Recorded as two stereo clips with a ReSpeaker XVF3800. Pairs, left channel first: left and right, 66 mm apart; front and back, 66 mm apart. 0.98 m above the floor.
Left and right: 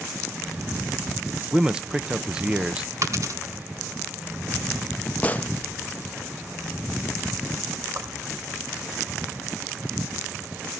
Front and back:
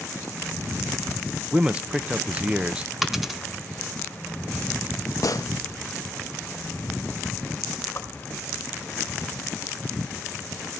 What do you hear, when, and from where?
1.5 s a man speaking: 145° right, 0.7 m
3.0 s a dropped coin: 95° right, 1.1 m
5.2 s a gunshot: 20° left, 0.6 m
8.0 s a whoosh: 55° right, 3.5 m